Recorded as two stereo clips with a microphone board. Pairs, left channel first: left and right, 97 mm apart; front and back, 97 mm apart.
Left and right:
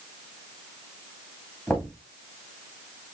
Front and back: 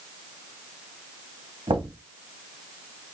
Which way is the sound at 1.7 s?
160° left.